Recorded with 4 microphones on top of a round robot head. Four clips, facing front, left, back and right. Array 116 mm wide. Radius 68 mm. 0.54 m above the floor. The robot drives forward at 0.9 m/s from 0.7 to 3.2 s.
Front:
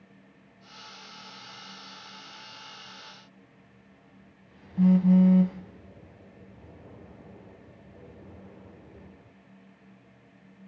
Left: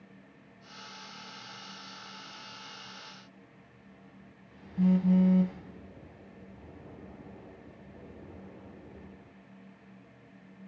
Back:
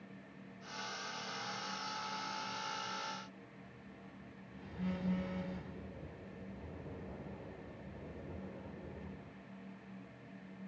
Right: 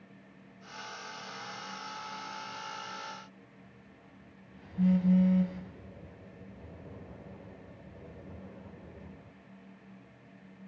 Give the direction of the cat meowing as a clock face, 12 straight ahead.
No cat meowing in this recording.